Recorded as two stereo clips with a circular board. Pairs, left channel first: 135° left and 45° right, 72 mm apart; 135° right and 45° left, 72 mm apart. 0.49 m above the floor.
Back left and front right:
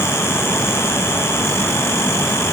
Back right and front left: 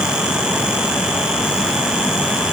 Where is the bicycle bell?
No bicycle bell in this recording.